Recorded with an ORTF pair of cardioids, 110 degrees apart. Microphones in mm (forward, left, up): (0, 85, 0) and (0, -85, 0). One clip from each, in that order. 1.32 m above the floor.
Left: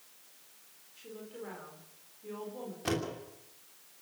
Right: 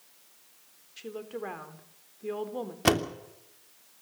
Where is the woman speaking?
65° right, 4 m.